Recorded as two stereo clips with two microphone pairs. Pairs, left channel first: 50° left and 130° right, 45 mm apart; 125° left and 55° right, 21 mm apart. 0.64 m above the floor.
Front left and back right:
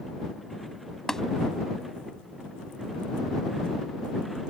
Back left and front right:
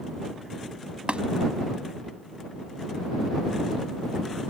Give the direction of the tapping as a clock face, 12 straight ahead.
1 o'clock.